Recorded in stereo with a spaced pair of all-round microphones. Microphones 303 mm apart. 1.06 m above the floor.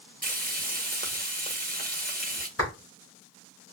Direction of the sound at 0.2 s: 30° right (ahead or behind).